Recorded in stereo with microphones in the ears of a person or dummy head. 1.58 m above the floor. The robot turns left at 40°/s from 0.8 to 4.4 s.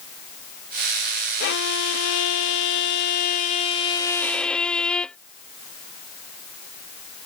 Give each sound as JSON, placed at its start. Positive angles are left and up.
{"t": 1.4, "sound": "a violin", "azimuth_deg": 125}